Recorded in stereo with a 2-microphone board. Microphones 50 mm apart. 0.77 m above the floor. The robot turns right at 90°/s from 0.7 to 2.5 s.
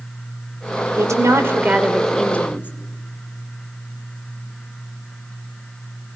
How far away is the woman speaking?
About 2.5 m.